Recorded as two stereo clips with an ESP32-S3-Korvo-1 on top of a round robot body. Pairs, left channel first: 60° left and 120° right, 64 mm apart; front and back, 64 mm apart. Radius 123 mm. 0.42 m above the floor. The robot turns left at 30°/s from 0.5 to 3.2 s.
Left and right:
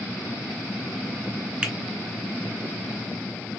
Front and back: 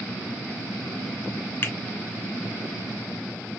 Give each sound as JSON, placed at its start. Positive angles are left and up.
{"t": 1.6, "sound": "a finger snap", "azimuth_deg": -45, "distance_m": 1.5}